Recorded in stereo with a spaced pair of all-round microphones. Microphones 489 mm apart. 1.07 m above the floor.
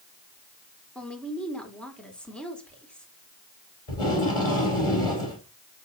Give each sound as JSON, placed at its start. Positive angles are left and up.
{"t": 0.9, "sound": "a woman speaking", "side_deg": 0, "distance_m": 3.5}
{"t": 3.9, "sound": "tape being pulled", "side_deg": 80, "distance_m": 4.5}